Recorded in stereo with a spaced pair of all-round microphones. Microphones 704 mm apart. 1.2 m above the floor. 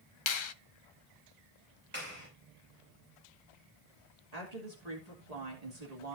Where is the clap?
15° right (ahead or behind), 7.5 m.